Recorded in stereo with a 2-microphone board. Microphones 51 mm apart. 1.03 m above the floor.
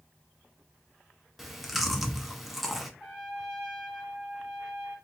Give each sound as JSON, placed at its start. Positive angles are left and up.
{"t": 1.4, "sound": "chewing", "side_deg": -5, "distance_m": 0.6}
{"t": 3.0, "sound": "a trumpet", "side_deg": -15, "distance_m": 1.6}